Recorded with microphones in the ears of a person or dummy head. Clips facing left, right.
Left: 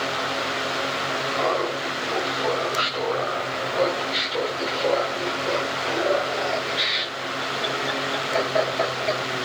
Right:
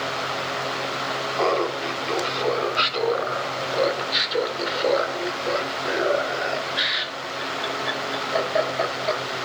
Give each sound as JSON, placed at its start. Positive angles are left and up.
{"t": 1.4, "sound": "laughter", "side_deg": -45, "distance_m": 4.5}